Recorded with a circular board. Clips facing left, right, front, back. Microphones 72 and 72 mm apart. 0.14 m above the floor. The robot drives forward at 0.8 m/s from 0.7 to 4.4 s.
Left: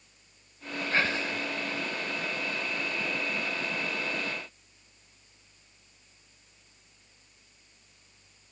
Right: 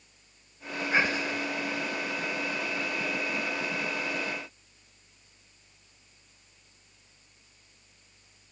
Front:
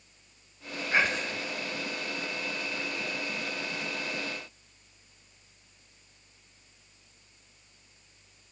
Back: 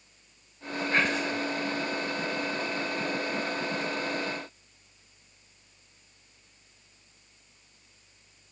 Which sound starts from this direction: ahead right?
Whispering, at 0.9 s.